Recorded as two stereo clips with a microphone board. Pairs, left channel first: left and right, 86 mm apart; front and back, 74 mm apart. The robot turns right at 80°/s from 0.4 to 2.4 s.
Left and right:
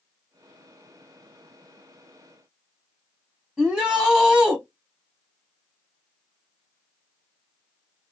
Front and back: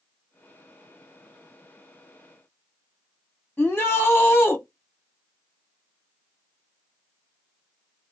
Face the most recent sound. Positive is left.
turn(degrees=-10)